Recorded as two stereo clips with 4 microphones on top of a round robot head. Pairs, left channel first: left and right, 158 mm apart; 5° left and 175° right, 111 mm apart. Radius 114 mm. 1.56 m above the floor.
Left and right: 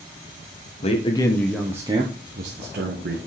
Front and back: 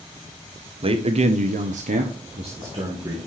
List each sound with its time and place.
0.8 s a man speaking: 145° left, 1.6 m; by 3.2 s 115° right, 2 m